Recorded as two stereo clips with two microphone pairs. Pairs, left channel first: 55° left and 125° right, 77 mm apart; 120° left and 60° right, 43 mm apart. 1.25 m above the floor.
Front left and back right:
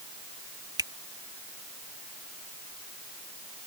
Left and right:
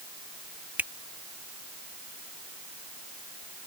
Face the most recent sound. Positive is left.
turn(degrees=-95)